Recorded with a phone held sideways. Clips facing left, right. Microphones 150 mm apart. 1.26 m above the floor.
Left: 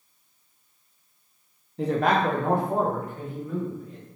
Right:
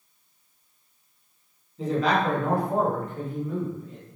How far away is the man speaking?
About 0.8 m.